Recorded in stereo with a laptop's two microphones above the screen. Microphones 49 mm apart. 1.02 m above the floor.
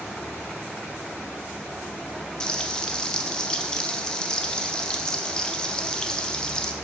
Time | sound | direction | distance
2.4 | frying | 20° left (ahead or behind) | 0.5 m